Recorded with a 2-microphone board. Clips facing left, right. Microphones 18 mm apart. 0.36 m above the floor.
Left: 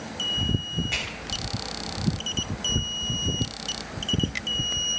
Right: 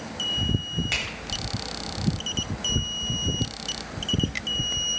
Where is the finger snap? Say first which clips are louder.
Right 2 dB; 45° right (ahead or behind), 1.4 m.